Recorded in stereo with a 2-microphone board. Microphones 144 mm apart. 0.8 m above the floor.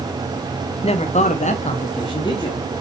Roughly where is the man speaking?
Left.